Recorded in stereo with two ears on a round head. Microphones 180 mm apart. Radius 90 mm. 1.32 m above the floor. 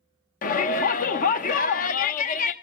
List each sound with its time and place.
0.4 s a shout: 40° left (ahead or behind), 1.0 m